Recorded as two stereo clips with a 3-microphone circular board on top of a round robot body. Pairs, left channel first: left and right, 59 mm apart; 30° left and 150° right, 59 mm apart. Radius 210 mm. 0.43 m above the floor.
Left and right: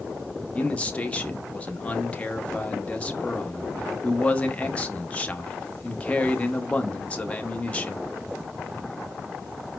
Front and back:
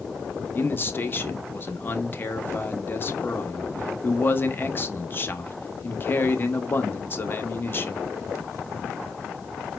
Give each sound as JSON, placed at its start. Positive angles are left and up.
{"t": 0.6, "sound": "a man speaking", "azimuth_deg": 40, "distance_m": 1.2}